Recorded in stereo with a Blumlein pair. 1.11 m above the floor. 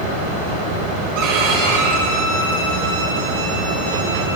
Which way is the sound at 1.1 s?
45° right.